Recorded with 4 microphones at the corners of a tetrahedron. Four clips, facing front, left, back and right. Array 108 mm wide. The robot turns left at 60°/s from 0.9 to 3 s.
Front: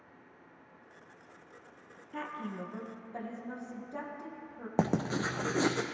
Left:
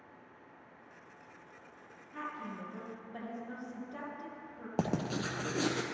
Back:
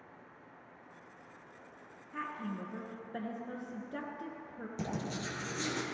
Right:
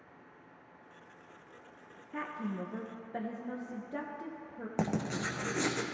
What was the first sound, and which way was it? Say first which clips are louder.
A woman speaking: right 4 dB, front 1 dB; 70° right.